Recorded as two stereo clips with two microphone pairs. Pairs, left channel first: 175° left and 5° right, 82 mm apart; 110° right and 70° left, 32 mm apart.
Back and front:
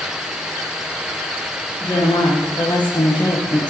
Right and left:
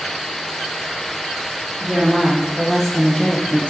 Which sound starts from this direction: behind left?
A woman speaking, at 1.8 s.